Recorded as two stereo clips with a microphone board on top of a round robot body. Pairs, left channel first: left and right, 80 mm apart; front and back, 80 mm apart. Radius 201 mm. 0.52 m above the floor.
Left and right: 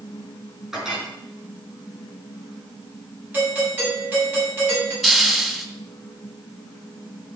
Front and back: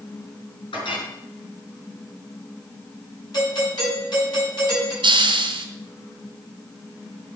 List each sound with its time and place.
0.7 s a clink: 5° right, 5.5 m
3.3 s a doorbell: 25° right, 8 m
5.0 s a hiss: straight behind, 2 m